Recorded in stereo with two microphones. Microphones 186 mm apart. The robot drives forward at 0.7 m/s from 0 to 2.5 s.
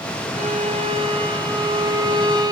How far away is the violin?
About 1.9 m.